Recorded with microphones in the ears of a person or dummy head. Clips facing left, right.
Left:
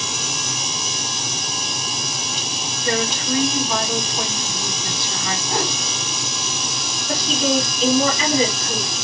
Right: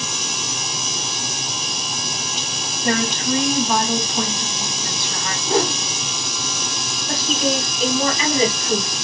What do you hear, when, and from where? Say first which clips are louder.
2.8 s a woman speaking: right 2 dB; 60° right (ahead or behind), 2 m
5.5 s a whoosh: right 7 dB; 40° right (ahead or behind), 2 m
7.1 s a woman speaking: left 1 dB; 50° right (ahead or behind), 2.5 m